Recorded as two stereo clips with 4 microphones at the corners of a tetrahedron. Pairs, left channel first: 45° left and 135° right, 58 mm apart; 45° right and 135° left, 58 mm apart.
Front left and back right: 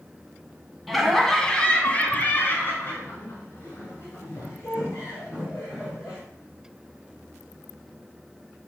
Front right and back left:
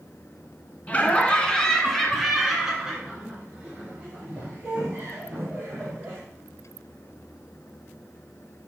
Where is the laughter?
45° right, 1.1 m; by 6.2 s 75° left, 3 m.